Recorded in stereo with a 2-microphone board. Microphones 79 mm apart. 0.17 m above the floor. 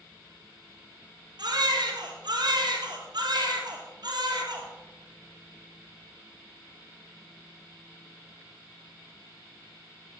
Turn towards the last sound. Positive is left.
turn(degrees=-65)  # may be behind; listen again after turning